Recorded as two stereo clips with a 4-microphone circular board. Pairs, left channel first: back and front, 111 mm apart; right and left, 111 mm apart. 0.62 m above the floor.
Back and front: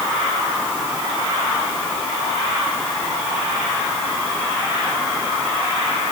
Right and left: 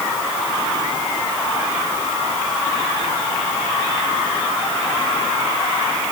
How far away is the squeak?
I don't hear a squeak.